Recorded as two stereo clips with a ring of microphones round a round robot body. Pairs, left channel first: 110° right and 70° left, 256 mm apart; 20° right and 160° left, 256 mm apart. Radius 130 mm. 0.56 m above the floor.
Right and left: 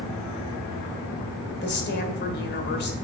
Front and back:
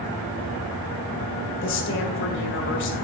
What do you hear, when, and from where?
1.6 s a woman speaking: 65° right, 1.9 m